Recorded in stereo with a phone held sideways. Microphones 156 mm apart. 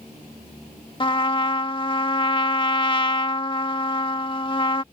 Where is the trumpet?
30° left (ahead or behind).